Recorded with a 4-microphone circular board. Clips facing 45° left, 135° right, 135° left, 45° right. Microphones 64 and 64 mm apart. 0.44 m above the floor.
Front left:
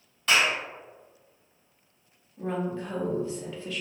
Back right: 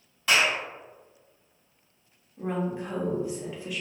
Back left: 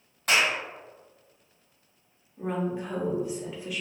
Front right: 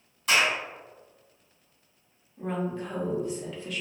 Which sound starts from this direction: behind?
A woman speaking, at 2.4 s.